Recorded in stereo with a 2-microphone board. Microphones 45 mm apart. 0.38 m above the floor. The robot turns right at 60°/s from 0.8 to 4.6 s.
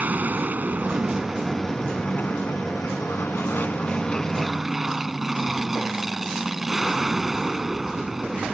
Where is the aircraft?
40° right; by 8.5 s 175° right.